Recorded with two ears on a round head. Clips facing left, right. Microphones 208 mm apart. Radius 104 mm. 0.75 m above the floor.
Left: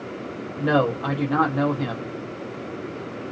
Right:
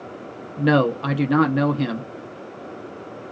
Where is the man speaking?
35° right (ahead or behind), 0.6 m.